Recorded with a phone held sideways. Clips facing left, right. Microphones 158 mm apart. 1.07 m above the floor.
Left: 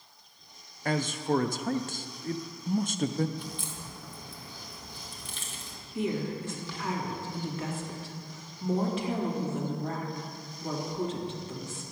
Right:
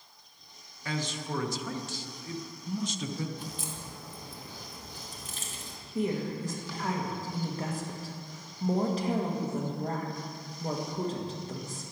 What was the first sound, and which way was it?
A man speaking, 50° left (ahead or behind).